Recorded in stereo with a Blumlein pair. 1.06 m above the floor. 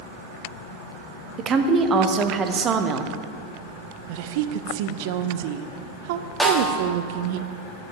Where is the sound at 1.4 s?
25° right, 1.0 m.